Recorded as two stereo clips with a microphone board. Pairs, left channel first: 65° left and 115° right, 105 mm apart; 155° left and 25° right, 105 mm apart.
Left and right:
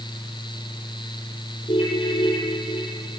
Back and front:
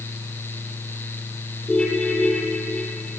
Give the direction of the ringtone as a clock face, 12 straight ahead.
9 o'clock.